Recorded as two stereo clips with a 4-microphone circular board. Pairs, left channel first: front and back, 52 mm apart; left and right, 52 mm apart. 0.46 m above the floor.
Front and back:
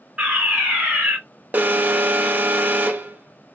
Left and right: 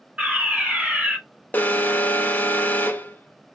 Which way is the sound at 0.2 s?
130° right.